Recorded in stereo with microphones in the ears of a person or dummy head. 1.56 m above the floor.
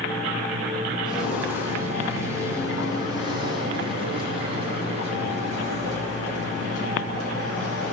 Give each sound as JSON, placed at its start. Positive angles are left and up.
{"t": 1.1, "sound": "footsteps", "side_deg": 0, "distance_m": 5.5}